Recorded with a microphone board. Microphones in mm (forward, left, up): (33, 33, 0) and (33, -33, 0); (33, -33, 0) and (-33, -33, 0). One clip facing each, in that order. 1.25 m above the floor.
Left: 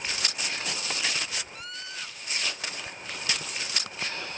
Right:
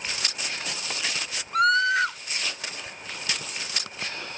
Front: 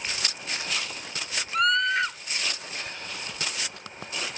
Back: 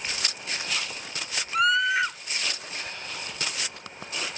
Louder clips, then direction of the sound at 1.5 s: Right 20 dB, back 1 dB; 95° right.